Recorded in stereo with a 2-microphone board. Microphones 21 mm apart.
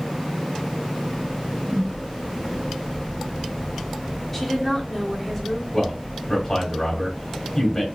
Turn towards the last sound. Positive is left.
turn(degrees=30)  # may be behind; listen again after turning